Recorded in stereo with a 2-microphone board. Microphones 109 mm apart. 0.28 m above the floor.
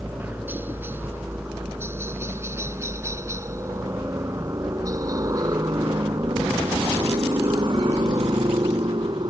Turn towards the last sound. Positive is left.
turn(degrees=-45)  # may be behind; listen again after turning